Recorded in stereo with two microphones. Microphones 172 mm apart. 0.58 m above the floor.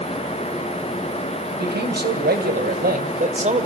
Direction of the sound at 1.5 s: 75° right (ahead or behind).